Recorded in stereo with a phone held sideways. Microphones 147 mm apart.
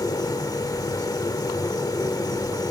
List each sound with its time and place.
0.0 s a machine running: 25° left (ahead or behind), 0.8 m